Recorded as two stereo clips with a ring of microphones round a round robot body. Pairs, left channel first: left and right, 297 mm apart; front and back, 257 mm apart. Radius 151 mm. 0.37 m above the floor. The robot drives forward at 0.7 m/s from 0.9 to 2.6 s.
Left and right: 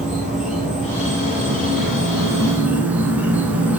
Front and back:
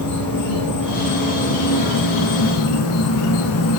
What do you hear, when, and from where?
0.0 s an insect: straight ahead, 2.5 m; by 3.8 s 5° right, 1.2 m